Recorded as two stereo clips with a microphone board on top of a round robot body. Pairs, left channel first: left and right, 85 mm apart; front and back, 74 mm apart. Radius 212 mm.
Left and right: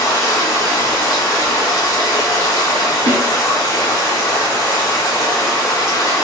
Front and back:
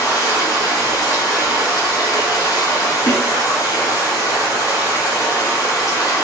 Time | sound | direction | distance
0.0 | running water | 40° left | 1.6 m
3.1 | a snare drum | 55° right | 0.8 m